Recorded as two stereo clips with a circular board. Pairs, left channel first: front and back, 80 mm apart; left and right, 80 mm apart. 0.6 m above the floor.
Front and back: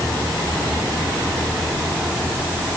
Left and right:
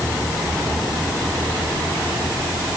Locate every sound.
Only background noise.